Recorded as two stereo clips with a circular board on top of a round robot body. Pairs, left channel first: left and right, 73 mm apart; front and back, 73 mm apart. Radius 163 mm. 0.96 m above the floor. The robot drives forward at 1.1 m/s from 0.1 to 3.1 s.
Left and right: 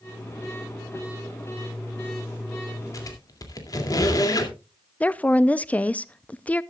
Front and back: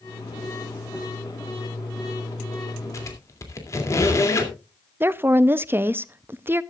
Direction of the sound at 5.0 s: 145° left.